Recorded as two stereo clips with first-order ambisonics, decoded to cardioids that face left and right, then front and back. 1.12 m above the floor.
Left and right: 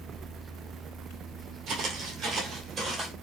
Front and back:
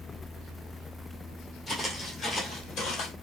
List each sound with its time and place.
1.7 s footsteps: 90° right, 1.4 m; by 3.1 s 25° right, 1.5 m